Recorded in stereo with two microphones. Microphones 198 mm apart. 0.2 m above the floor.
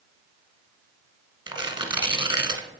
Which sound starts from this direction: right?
Tearing paper, at 1.5 s.